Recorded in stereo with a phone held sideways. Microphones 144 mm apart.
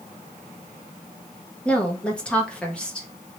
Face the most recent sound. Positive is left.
turn(degrees=10)  # may be behind; listen again after turning